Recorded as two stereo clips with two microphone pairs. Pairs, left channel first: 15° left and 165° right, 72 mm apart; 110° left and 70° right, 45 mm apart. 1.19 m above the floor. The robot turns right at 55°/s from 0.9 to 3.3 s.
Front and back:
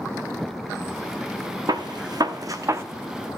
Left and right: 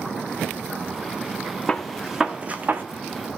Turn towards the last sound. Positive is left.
turn(degrees=-90)